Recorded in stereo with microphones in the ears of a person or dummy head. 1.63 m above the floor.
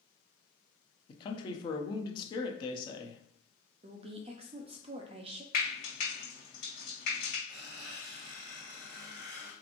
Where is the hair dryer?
No hair dryer in this recording.